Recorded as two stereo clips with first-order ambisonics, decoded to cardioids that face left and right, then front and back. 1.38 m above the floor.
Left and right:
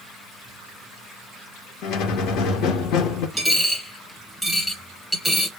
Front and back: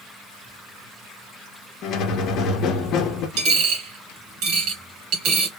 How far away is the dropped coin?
About 2.0 m.